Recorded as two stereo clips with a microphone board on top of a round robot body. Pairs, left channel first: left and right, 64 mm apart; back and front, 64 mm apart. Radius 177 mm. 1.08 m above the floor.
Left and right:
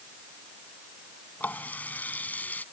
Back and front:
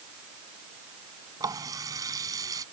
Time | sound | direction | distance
1.4 | a running tap | 25° left | ?